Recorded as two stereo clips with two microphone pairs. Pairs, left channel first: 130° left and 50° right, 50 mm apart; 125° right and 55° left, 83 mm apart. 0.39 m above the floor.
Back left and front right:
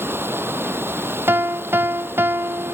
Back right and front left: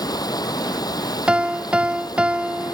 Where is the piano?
20° right.